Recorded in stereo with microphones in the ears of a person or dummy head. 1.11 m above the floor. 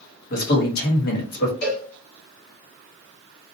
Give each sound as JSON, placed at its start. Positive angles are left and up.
{"t": 0.3, "sound": "a man speaking", "side_deg": 65, "distance_m": 1.4}
{"t": 1.6, "sound": "a cowbell", "side_deg": 45, "distance_m": 1.1}